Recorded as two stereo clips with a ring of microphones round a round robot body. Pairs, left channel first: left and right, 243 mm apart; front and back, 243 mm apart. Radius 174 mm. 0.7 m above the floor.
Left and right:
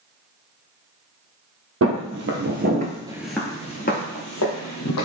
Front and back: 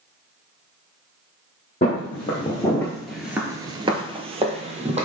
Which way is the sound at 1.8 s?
70° right.